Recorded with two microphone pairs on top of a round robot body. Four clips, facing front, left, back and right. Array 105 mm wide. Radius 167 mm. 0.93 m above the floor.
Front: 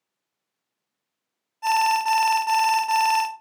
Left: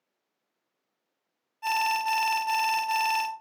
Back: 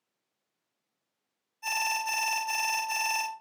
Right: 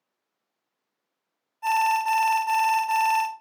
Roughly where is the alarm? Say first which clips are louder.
Right 5 dB, front 12 dB; ahead.